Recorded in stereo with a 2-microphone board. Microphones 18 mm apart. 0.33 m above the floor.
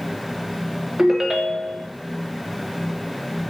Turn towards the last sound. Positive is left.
turn(degrees=-25)  # may be behind; listen again after turning